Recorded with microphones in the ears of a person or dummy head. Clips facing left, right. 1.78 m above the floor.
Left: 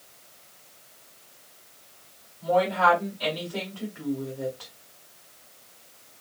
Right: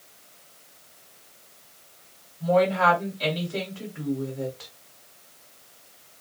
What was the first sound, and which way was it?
A woman speaking, 30° right (ahead or behind).